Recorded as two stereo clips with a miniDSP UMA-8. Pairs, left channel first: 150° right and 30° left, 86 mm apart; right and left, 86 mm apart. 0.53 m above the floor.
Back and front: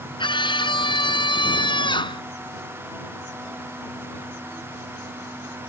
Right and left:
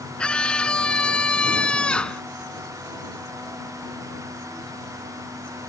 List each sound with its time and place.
0.2 s a scream: 170° right